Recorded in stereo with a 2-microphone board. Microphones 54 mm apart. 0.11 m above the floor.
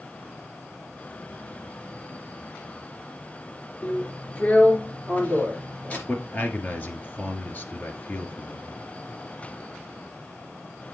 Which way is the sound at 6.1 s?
35° left (ahead or behind).